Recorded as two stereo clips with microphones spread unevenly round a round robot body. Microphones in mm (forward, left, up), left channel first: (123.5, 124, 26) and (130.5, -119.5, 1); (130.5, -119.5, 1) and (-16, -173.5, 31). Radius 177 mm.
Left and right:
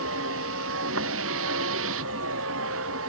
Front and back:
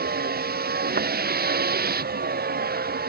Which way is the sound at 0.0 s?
145° right.